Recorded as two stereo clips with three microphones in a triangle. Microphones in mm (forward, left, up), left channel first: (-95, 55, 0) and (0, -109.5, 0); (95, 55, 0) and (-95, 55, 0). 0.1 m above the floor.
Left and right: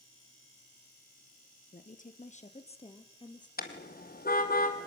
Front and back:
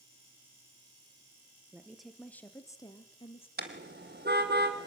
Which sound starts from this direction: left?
A woman speaking, at 1.7 s.